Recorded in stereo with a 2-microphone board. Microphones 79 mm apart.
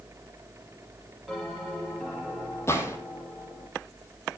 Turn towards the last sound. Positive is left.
turn(degrees=35)  # may be behind; listen again after turning